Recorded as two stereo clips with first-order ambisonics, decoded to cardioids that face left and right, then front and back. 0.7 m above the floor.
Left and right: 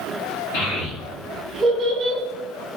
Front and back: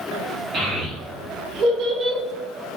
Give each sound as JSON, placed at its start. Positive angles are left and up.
{"t": 0.5, "sound": "a child speaking", "azimuth_deg": 120, "distance_m": 1.1}